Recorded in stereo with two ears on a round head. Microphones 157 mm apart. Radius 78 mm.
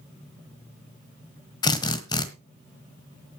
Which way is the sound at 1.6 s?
25° left (ahead or behind).